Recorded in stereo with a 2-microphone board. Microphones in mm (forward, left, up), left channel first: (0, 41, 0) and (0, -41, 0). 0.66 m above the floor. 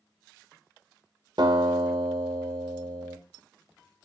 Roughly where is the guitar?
Right.